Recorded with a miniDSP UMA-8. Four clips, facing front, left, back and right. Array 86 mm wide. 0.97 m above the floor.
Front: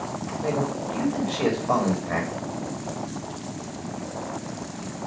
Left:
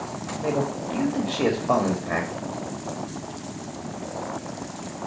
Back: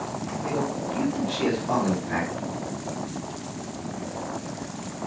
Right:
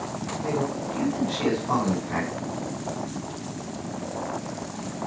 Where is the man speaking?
80° left, 1.9 m.